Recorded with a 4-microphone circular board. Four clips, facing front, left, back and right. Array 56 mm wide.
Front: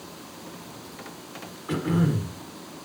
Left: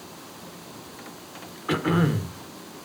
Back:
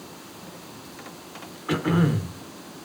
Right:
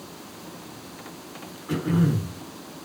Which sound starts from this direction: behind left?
Throat clearing, at 1.7 s.